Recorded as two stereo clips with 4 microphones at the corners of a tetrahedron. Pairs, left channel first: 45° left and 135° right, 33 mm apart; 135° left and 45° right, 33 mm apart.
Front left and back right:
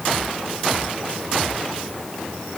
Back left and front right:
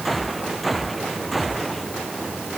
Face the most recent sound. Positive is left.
No sound to turn to.